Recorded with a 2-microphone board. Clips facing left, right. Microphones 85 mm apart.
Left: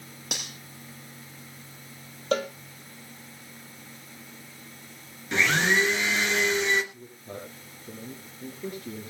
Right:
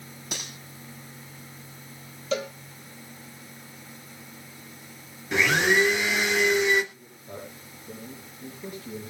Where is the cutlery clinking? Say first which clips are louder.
Even; 70° left (ahead or behind), 7.5 m.